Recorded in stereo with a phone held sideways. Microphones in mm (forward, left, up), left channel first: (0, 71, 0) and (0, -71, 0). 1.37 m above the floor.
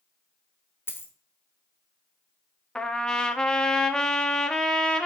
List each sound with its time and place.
0.9 s a dropped coin: 15° left (ahead or behind), 0.8 m
2.8 s a trumpet: 5° left (ahead or behind), 0.6 m